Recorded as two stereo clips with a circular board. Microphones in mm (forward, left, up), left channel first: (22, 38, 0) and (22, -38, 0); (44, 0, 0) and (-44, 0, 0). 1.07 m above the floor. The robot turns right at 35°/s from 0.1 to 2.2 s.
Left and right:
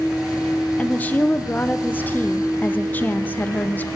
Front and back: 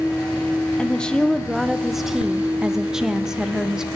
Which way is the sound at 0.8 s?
55° left.